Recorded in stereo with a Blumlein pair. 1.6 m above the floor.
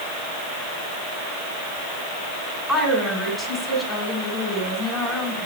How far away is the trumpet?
I don't hear a trumpet.